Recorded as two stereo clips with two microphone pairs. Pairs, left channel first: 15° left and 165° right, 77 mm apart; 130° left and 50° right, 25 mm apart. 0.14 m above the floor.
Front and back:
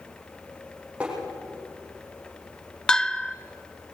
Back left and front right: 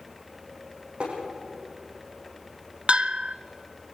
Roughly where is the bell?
Right.